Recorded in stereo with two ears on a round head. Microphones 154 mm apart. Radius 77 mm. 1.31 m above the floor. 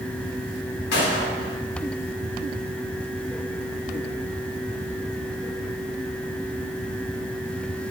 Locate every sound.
0.9 s a gunshot: 65° left (ahead or behind), 1.5 m